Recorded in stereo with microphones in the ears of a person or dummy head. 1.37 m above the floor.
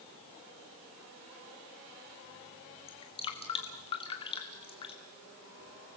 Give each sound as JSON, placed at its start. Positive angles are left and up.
{"t": 2.9, "sound": "dripping", "side_deg": 25, "distance_m": 2.0}